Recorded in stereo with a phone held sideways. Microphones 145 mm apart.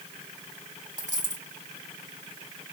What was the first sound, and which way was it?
A dropped coin, 55° right (ahead or behind).